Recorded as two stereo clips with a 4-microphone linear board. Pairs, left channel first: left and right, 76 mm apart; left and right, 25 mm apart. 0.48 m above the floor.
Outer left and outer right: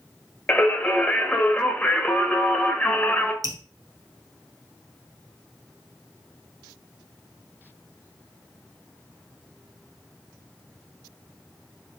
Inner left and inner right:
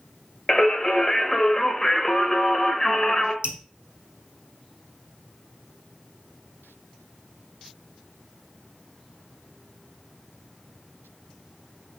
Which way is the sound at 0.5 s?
15° left (ahead or behind).